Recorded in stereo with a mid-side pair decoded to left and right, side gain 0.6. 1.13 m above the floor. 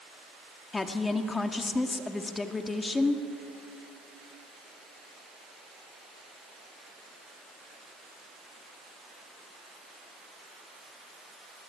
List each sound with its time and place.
0.7 s a woman speaking: 25° left, 2 m